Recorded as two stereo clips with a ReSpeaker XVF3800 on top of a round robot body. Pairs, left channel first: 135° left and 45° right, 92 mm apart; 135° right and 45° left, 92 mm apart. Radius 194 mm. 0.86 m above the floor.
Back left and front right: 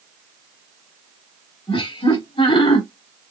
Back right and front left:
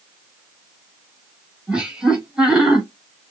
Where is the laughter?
125° left, 2 m.